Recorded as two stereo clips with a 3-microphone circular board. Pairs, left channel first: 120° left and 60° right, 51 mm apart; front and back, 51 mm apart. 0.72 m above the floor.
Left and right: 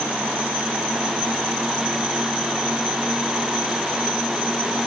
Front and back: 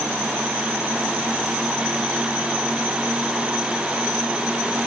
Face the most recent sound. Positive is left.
No sound to turn to.